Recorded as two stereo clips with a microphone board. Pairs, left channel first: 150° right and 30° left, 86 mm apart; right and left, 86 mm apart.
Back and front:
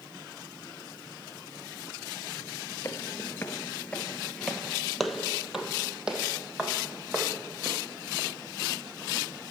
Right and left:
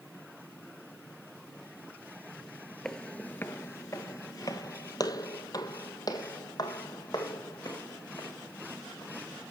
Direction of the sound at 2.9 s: 170° right.